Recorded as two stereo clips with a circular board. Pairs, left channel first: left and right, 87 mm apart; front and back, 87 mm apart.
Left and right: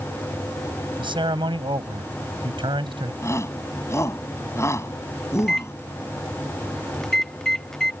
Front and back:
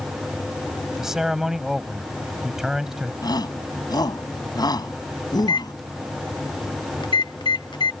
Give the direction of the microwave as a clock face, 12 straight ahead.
12 o'clock.